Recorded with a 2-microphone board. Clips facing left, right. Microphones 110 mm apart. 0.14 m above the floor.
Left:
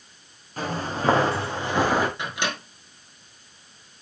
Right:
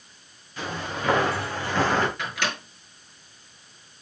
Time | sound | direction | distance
0.6 | footsteps | 40° left (ahead or behind) | 3 m
2.2 | a microwave | 20° left (ahead or behind) | 1.9 m